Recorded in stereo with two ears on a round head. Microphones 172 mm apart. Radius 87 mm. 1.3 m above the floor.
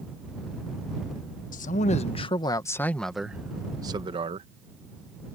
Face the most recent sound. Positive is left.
turn(degrees=-35)  # may be behind; listen again after turning